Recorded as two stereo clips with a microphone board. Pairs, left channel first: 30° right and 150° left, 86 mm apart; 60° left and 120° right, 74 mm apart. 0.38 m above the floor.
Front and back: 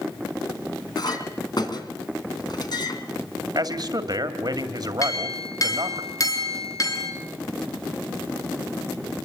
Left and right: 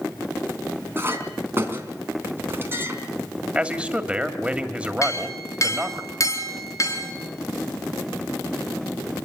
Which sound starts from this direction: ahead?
A clink, at 5.0 s.